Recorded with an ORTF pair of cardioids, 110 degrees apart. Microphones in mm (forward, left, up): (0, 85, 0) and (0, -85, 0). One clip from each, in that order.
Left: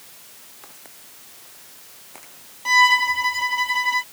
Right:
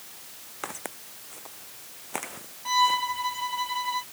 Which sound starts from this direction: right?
Footsteps, at 0.6 s.